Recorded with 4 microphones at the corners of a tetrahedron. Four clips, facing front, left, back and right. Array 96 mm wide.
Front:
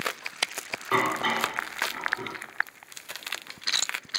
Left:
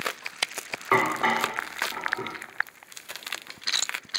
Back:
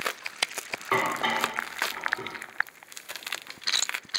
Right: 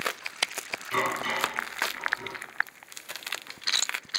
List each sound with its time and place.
0.9 s dishes clattering: 95° left, 4.5 m